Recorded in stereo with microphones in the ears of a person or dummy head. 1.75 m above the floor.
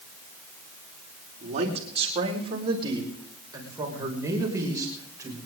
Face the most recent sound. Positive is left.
turn(degrees=-15)  # may be behind; listen again after turning